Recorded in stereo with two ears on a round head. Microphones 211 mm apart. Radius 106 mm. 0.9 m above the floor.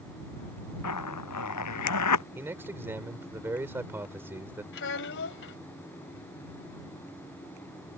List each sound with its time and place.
0.8 s a zipper: 85° left
2.4 s a man speaking: 10° right (ahead or behind)
4.7 s a child speaking: 55° left (ahead or behind)